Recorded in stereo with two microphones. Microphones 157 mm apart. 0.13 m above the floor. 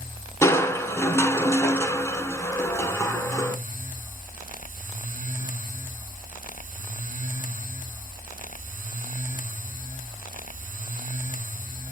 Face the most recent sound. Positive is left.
turn(degrees=15)  # may be behind; listen again after turning